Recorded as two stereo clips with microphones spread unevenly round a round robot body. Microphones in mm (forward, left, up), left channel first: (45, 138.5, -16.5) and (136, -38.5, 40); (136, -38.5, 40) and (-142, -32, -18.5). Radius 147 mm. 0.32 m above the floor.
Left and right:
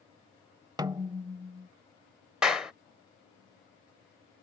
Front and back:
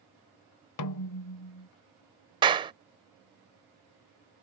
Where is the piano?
No piano in this recording.